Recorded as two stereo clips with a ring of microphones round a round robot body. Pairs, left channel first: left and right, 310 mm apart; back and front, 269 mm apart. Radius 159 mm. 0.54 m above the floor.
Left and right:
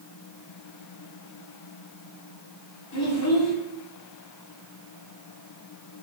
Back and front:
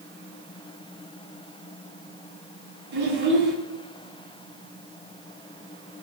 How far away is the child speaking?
About 2.5 m.